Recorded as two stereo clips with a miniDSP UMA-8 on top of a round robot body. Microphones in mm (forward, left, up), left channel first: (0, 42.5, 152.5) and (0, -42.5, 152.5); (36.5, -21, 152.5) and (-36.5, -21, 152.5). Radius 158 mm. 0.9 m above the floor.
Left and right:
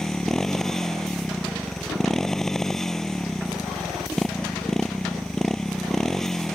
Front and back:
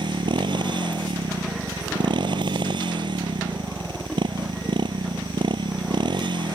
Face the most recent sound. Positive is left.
turn(degrees=175)